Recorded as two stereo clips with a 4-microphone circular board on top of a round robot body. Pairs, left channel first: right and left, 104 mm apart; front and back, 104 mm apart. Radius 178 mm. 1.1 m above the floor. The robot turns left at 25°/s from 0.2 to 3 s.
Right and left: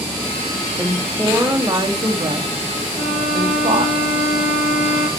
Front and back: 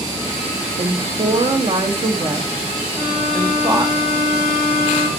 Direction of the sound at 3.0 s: 90° right.